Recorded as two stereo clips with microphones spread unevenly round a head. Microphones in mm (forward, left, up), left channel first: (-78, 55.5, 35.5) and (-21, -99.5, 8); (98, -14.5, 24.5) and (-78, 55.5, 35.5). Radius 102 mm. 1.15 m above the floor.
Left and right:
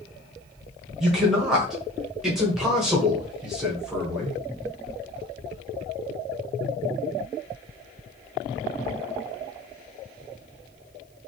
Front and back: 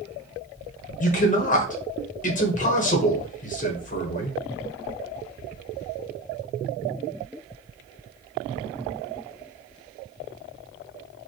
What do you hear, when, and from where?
1.0 s a man speaking: 10° left, 1.0 m